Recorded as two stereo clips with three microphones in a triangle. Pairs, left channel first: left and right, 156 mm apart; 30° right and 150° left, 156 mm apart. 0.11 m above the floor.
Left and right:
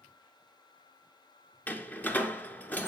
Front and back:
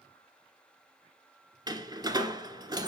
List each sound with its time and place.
1.7 s a door slam: 155° left, 1.1 m